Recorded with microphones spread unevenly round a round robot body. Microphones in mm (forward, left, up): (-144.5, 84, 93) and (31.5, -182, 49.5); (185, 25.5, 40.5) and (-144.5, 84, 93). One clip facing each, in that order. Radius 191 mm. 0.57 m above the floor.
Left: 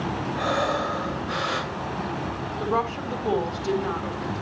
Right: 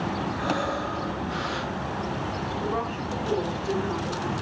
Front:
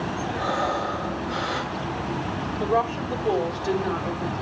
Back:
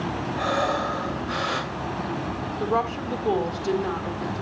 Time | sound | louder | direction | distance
0.4 | breathing | left 2 dB, back 3 dB | 130° left | 2.5 m
2.6 | a woman speaking | left 5 dB, front 1 dB | 100° left | 3.5 m